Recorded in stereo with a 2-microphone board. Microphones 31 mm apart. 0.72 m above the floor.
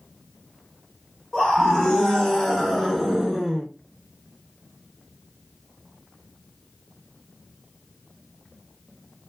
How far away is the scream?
About 1.4 m.